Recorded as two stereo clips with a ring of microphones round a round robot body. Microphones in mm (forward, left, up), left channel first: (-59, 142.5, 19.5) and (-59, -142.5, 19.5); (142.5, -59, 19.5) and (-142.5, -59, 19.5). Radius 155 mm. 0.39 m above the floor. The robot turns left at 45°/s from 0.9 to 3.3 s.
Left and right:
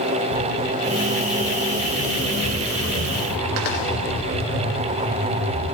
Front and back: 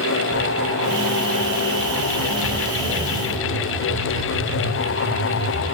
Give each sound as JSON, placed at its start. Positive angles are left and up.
{"t": 0.3, "sound": "footsteps", "azimuth_deg": 80, "distance_m": 1.0}